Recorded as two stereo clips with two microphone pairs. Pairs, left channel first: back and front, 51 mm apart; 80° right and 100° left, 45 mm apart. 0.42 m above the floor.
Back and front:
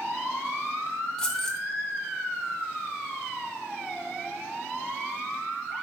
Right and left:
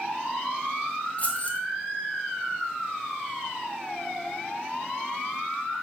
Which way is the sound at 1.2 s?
115° right.